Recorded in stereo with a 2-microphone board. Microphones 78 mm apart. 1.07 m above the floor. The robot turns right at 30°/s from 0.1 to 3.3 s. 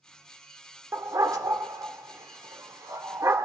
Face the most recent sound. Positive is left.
turn(degrees=-40)  # may be behind; listen again after turning